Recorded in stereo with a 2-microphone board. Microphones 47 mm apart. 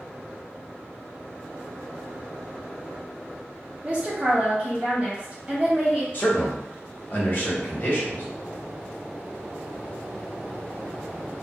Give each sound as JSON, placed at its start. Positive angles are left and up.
{"t": 3.8, "sound": "a woman speaking", "side_deg": -20, "distance_m": 0.6}
{"t": 6.1, "sound": "a man speaking", "side_deg": 45, "distance_m": 1.0}